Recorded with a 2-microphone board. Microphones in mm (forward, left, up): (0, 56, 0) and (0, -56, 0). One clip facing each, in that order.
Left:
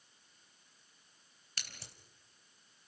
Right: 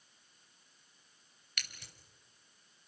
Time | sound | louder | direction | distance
1.6 | scissors | right 1 dB | 35° left (ahead or behind) | 3 m